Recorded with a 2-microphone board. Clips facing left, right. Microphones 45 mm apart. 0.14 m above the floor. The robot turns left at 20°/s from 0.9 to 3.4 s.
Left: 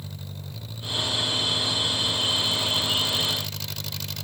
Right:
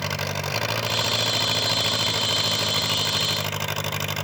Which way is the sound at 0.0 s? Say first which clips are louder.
Right 14 dB; 80° right.